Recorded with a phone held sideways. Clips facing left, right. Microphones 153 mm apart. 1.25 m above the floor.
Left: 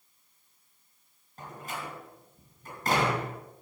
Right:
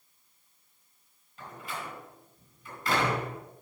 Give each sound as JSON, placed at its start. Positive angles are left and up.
{"t": 1.4, "sound": "a door slam", "side_deg": 45, "distance_m": 4.5}